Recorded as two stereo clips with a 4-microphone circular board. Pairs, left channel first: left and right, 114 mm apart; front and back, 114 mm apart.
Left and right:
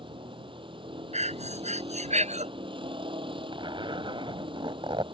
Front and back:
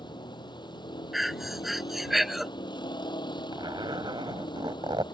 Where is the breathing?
90° right.